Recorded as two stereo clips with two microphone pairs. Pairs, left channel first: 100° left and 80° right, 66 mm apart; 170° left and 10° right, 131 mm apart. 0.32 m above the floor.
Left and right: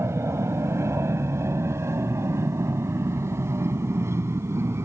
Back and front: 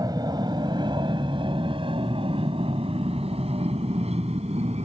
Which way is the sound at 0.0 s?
60° right.